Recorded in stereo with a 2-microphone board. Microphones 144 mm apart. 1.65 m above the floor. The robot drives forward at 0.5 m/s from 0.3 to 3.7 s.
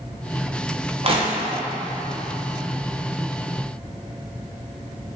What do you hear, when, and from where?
1.0 s crushing: 40° right (ahead or behind), 0.6 m; by 1.6 s 35° right (ahead or behind), 0.8 m